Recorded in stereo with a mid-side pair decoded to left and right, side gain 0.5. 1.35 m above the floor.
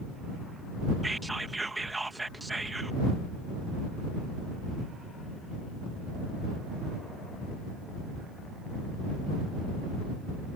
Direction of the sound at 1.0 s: 15° right.